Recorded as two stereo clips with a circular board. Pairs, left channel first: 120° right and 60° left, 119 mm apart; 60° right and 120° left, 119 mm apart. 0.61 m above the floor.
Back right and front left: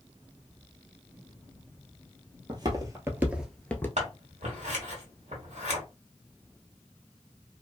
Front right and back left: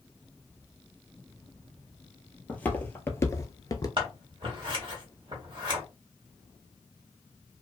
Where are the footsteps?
15° left, 1.0 m; by 3.9 s 65° right, 0.6 m.